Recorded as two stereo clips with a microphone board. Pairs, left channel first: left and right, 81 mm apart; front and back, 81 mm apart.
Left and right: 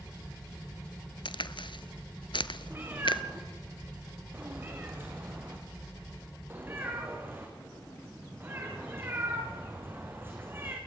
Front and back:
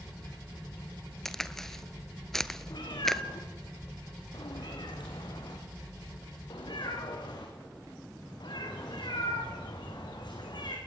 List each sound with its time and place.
1.2 s a crack: 85° left, 0.8 m
2.7 s a cat meowing: 25° right, 6.5 m